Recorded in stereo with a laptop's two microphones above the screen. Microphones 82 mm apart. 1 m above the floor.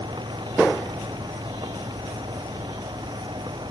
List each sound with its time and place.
0.0 s a fan: 70° right (ahead or behind)